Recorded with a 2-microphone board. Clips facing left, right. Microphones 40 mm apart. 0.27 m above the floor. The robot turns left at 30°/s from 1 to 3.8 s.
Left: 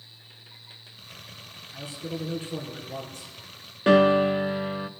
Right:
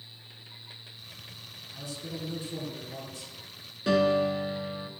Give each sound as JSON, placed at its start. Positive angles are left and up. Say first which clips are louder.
{"t": 1.7, "sound": "a man speaking", "louder": "left 5 dB", "azimuth_deg": 155, "distance_m": 3.0}
{"t": 3.9, "sound": "a piano", "louder": "left 6 dB", "side_deg": 45, "distance_m": 0.5}